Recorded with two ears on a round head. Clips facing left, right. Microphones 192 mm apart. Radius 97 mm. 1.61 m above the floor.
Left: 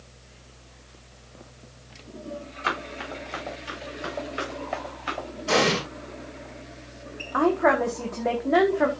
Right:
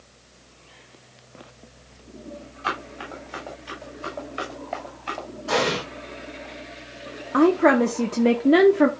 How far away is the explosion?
About 5.5 m.